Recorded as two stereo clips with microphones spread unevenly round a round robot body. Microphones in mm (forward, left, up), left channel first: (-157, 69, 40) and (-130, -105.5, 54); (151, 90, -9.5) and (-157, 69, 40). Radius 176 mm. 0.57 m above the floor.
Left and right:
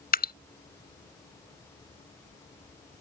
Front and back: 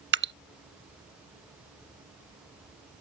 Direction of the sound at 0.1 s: 135° left.